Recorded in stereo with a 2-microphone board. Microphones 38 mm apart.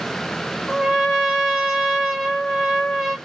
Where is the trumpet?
Centre (ahead or behind), 1.4 m.